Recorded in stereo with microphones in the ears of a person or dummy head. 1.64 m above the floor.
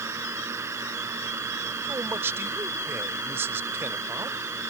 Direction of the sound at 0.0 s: 15° right (ahead or behind).